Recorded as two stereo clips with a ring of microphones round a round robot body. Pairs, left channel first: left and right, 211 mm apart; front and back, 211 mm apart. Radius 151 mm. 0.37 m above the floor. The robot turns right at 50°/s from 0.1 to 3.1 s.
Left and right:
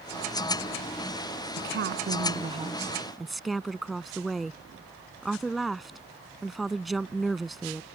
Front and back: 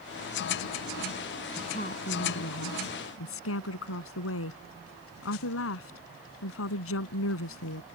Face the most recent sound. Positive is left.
turn(degrees=0)